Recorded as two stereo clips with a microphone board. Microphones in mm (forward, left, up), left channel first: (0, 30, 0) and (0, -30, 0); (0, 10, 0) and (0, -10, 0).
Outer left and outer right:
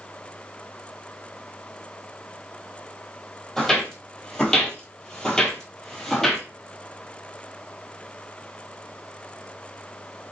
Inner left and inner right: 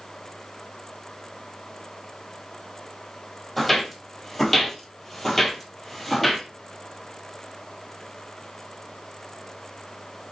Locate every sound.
3.6 s footsteps: 10° left (ahead or behind), 1.8 m; by 6.4 s 5° left (ahead or behind), 1.8 m